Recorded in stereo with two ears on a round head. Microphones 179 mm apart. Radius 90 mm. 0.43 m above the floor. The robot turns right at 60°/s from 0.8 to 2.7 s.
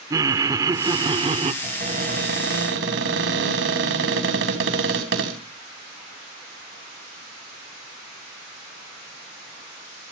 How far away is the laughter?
About 0.8 m.